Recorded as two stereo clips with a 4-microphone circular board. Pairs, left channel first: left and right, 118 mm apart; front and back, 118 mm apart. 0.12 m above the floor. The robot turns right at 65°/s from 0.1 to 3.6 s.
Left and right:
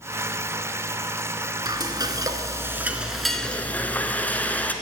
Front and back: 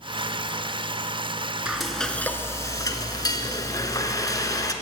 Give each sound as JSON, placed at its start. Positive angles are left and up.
{"t": 1.6, "sound": "frying", "azimuth_deg": -105, "distance_m": 1.0}